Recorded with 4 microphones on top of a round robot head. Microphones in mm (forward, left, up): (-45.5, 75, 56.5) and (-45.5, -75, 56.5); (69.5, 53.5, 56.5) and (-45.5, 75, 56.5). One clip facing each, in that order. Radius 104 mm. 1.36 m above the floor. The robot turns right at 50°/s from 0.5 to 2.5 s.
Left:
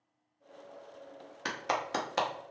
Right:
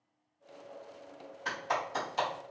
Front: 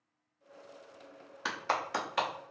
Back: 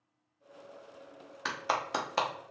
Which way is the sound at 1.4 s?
75° left.